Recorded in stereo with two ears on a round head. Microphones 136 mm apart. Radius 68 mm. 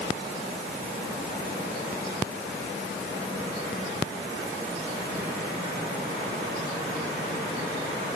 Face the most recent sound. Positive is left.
No sound to turn to.